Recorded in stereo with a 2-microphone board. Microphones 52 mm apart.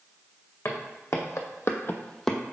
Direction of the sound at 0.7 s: 65° left (ahead or behind).